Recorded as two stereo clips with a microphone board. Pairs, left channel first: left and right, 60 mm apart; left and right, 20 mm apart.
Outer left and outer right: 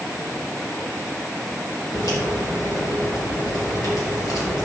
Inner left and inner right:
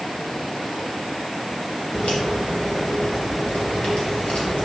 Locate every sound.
1.9 s a crack: 75° left (ahead or behind), 3 m